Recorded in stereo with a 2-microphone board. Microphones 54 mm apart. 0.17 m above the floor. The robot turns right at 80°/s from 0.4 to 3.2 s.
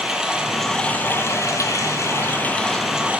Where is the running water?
15° right, 1.8 m; by 3.2 s 155° right, 1.8 m.